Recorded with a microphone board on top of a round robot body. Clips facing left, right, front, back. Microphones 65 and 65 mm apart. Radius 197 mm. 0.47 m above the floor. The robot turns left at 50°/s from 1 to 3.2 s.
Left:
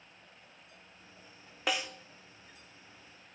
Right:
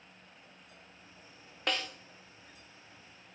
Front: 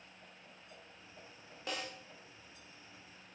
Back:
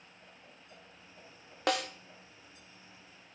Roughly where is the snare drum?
Behind.